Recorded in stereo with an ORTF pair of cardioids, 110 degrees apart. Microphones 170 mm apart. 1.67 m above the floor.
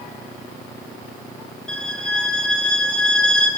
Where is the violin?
5° left, 7.5 m.